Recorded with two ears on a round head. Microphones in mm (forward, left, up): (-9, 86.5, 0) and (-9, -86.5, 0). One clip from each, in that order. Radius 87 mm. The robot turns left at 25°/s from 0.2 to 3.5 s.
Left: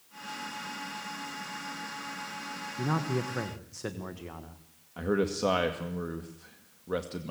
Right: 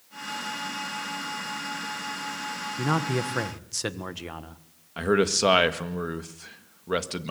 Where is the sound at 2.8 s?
55° right (ahead or behind), 1.6 m; by 4.6 s 75° right (ahead or behind), 1.6 m.